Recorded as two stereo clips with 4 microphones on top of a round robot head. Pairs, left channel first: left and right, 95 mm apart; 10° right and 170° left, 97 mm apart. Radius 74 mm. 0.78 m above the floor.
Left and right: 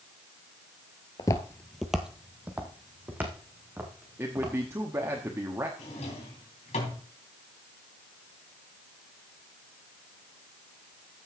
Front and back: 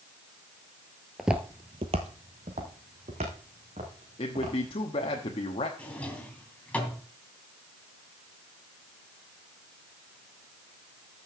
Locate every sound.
1.2 s footsteps: 80° left, 0.9 m; by 5.2 s 155° right, 6 m
4.2 s a man speaking: 25° right, 1.2 m
5.8 s a drawer: 65° left, 3 m